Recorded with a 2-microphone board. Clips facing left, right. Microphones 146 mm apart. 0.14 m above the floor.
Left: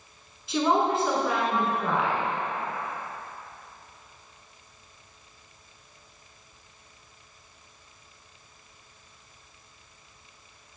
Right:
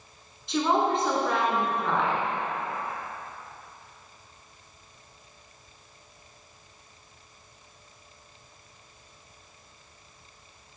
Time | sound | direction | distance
0.5 | a woman speaking | 5° left (ahead or behind) | 1.4 m